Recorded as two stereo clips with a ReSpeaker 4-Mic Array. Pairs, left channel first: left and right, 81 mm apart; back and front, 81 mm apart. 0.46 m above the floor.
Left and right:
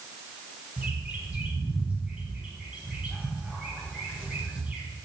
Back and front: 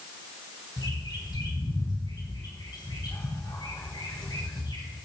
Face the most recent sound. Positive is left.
turn(degrees=-160)